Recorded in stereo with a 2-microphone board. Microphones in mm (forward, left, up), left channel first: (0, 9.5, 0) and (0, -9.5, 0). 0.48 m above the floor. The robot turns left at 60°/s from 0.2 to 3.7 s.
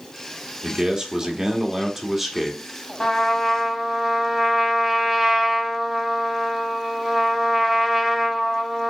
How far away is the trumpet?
About 1.6 m.